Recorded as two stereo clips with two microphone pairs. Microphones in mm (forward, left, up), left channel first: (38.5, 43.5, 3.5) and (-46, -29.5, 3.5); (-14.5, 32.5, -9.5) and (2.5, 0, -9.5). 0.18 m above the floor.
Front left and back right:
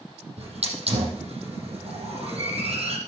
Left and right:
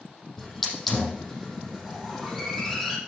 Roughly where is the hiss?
Behind.